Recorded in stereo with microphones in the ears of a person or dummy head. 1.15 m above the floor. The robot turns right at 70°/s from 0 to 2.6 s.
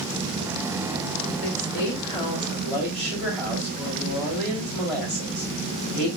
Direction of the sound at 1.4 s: 95° left.